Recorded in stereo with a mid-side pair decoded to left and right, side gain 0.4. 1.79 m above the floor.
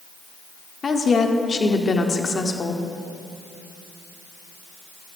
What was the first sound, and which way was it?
A woman speaking, 40° left.